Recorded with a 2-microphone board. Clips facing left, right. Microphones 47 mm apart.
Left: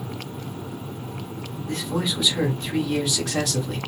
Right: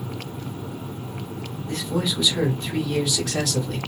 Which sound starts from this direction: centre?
A man speaking, at 1.7 s.